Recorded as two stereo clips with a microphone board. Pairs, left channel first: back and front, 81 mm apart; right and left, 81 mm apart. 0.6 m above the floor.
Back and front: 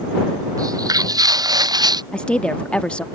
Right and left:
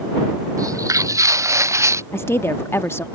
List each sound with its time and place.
0.6 s footsteps: 45° left; by 2.0 s 35° left
2.1 s a woman speaking: 115° right